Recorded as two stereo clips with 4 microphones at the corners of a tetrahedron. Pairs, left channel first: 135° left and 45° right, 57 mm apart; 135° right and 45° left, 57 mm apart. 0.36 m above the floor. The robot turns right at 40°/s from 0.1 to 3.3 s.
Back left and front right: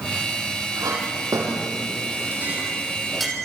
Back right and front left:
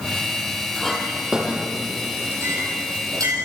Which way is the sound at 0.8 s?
55° right.